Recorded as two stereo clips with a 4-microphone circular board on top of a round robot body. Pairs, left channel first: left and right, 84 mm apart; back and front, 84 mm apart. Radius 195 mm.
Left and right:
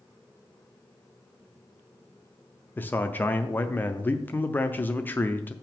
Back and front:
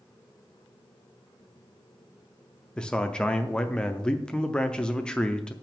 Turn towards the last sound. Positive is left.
turn(degrees=115)